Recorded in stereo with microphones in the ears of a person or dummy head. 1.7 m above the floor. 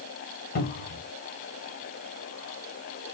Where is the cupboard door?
40° left (ahead or behind), 0.8 m.